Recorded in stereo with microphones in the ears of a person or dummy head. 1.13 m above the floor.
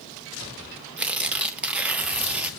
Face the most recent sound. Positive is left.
turn(degrees=-5)  # may be behind; listen again after turning